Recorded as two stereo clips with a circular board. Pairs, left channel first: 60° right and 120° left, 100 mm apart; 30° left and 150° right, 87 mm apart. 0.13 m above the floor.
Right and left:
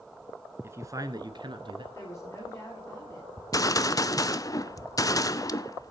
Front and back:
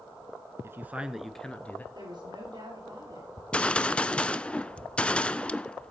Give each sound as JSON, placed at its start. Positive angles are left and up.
{"t": 0.6, "sound": "a man speaking", "azimuth_deg": 170, "distance_m": 1.5}
{"t": 1.9, "sound": "a woman speaking", "azimuth_deg": -120, "distance_m": 8.0}
{"t": 3.4, "sound": "a gunshot", "azimuth_deg": -35, "distance_m": 0.5}